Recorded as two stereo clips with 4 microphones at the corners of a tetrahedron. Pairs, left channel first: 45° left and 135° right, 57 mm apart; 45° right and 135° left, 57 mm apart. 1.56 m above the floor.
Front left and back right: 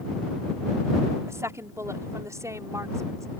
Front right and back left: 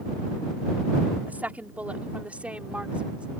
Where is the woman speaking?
165° right; by 3.3 s 155° right.